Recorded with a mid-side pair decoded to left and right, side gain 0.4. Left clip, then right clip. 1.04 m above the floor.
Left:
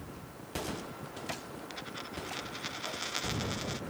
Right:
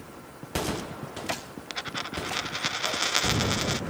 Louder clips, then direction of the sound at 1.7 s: Right 11 dB; 65° right.